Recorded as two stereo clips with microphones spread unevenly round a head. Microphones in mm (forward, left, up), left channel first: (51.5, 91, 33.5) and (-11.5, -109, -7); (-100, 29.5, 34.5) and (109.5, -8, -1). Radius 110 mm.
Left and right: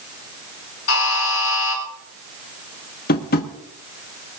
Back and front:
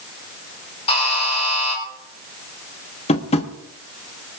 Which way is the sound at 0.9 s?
105° left.